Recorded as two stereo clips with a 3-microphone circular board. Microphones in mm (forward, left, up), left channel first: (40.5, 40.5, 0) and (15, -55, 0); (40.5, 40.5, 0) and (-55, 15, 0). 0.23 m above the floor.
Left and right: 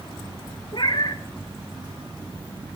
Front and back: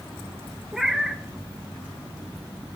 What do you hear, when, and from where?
0.7 s a cat meowing: 110° left, 0.7 m